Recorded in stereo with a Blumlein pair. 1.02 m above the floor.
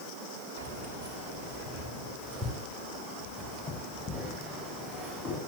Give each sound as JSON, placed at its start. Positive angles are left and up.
{"t": 0.6, "sound": "keys jangling", "azimuth_deg": -40, "distance_m": 2.0}